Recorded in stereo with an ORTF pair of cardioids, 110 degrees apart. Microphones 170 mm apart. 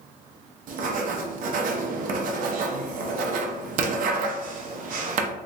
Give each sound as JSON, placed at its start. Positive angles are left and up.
{"t": 0.7, "sound": "writing", "azimuth_deg": -60, "distance_m": 0.6}